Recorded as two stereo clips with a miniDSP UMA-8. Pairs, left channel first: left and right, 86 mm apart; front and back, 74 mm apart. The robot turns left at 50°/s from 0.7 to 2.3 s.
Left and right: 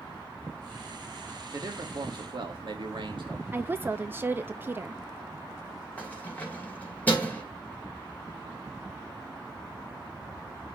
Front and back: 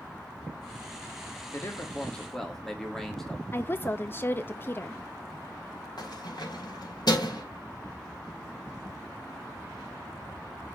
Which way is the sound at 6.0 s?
20° left.